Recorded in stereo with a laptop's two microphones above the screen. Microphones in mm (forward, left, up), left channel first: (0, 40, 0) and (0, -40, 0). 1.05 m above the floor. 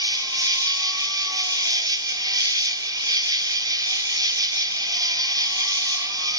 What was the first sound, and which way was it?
An insect, 50° right (ahead or behind).